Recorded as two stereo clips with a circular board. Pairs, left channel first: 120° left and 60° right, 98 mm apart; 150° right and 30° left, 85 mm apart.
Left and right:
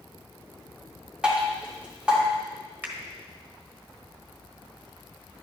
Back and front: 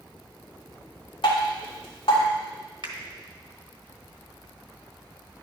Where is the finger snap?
10° left, 1.1 m.